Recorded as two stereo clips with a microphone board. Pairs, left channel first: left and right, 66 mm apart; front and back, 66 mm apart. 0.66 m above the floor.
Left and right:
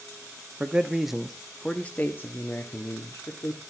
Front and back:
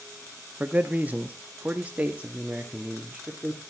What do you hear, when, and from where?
0.6 s a man speaking: 140° right, 1.2 m; by 3.6 s 110° left, 2 m